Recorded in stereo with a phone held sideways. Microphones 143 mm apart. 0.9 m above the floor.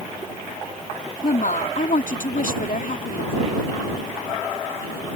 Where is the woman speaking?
70° left (ahead or behind).